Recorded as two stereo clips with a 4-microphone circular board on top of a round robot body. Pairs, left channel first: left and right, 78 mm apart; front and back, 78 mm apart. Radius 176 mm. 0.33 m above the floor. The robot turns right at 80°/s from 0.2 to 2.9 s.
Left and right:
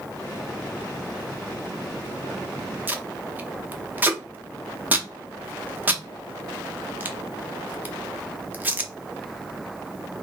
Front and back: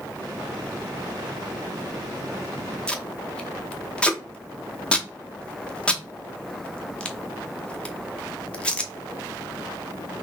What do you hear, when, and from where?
2.9 s tape being pulled: 60° right, 1.1 m